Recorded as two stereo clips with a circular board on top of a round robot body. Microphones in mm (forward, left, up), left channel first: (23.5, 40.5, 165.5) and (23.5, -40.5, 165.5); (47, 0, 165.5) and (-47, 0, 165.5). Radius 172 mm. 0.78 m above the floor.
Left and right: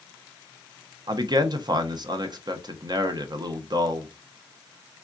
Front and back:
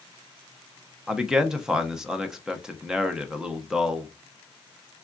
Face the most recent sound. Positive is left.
turn(degrees=-100)